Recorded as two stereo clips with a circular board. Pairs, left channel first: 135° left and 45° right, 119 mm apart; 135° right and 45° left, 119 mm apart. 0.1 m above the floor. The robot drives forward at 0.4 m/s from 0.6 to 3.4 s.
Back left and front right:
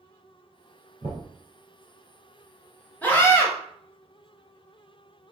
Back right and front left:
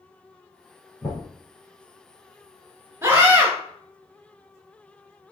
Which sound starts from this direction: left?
A scream, at 3.0 s.